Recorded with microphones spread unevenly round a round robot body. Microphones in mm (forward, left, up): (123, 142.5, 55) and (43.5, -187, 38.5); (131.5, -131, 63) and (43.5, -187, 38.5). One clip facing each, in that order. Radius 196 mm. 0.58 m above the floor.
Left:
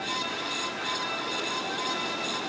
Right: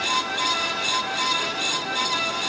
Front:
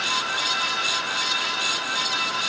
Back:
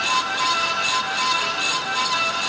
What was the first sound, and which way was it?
Only background noise.